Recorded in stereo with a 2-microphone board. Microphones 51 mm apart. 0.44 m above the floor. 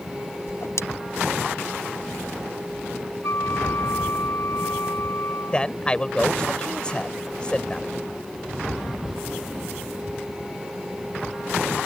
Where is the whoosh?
65° left (ahead or behind).